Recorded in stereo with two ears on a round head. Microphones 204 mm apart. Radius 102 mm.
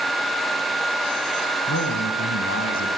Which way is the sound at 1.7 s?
65° left (ahead or behind).